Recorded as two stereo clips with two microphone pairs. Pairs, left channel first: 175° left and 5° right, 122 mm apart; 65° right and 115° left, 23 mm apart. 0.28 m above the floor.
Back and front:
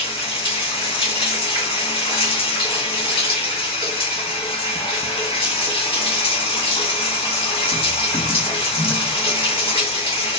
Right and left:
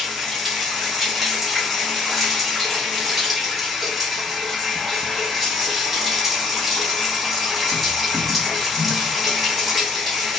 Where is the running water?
150° right, 2 m.